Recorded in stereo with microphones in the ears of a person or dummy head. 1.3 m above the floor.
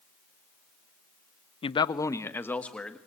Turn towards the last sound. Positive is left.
turn(degrees=5)  # may be behind; listen again after turning